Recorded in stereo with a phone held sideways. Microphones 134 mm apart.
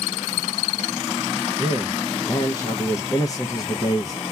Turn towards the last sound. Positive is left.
turn(degrees=25)  # may be behind; listen again after turning